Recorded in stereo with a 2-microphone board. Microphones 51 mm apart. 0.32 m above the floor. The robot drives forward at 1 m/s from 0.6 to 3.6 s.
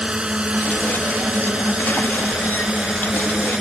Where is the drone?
20° right (ahead or behind); by 3.6 s 15° right (ahead or behind).